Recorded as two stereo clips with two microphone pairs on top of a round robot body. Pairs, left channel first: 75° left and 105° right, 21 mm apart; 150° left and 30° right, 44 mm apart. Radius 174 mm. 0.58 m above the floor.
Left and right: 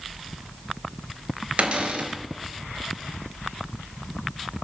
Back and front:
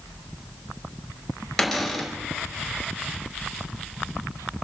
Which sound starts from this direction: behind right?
A cupboard door, at 1.6 s.